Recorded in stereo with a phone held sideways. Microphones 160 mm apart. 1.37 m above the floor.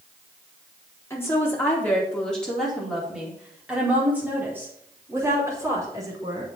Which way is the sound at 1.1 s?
15° left (ahead or behind).